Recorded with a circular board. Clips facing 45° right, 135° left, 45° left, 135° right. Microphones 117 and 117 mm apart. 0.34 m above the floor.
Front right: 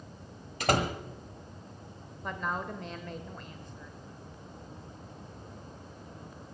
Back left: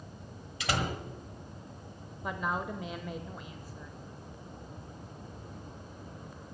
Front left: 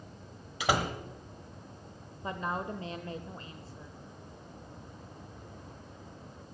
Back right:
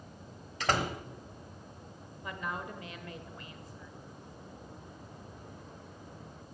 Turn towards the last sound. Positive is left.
turn(degrees=60)